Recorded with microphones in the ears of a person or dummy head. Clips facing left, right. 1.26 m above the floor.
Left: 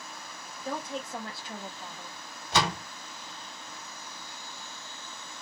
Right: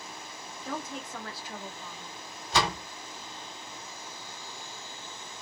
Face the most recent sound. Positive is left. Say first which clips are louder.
# even
turn(degrees=80)